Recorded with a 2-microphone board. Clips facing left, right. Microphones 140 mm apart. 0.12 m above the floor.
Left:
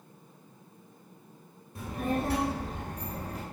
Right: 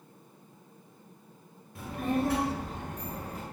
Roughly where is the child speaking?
Centre.